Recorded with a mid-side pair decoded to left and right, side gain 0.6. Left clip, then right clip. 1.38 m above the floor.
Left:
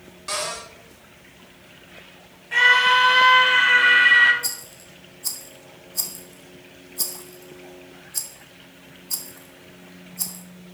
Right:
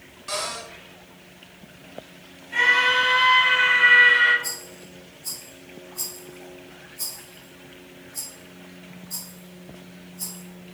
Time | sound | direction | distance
0.3 | a cupboard door | 25° left | 4.5 m
2.5 | a scream | 60° left | 4 m
4.4 | a rattle | 55° left | 2 m